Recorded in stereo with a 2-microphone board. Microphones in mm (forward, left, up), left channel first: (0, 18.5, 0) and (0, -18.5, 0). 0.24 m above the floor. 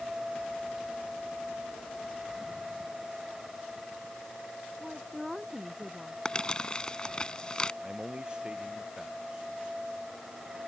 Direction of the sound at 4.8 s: 5° right (ahead or behind).